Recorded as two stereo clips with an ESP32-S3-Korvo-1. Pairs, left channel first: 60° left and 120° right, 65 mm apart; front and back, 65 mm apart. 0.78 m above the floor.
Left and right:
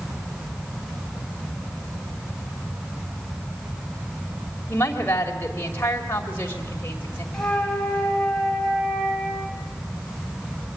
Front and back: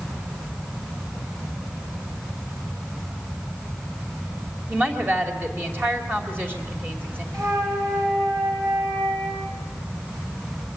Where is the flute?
140° left, 5 m.